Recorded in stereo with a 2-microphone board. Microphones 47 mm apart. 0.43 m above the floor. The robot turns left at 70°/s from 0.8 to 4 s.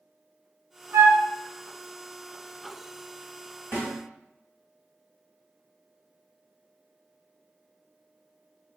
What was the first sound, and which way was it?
A flute, 70° right (ahead or behind).